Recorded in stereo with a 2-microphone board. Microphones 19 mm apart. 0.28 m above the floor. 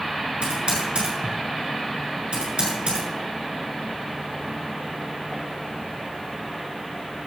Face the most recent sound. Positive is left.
turn(degrees=-75)  # may be behind; listen again after turning